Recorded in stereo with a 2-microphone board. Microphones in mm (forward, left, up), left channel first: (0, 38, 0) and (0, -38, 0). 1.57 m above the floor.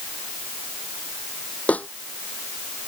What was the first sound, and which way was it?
A snare drum, 20° left (ahead or behind).